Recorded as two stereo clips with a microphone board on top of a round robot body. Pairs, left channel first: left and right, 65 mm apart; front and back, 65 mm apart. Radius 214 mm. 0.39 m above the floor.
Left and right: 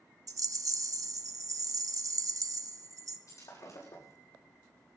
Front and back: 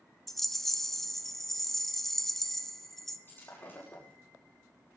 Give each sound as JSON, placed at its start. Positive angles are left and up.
{"t": 0.3, "sound": "a rattle", "azimuth_deg": -85, "distance_m": 1.3}
{"t": 3.3, "sound": "breaking glass", "azimuth_deg": 55, "distance_m": 7.0}